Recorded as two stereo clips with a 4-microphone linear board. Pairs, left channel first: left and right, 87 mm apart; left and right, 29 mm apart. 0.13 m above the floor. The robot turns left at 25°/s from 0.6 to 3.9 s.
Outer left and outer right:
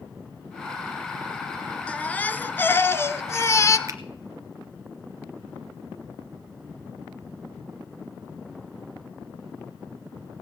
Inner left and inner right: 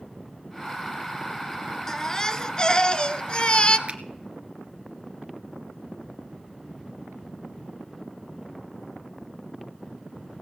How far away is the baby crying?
About 0.5 m.